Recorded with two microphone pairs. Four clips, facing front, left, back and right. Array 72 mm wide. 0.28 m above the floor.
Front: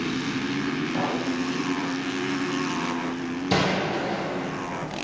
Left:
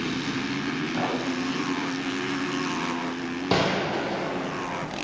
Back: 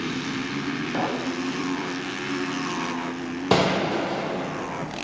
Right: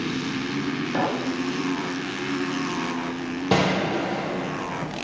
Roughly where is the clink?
Behind right.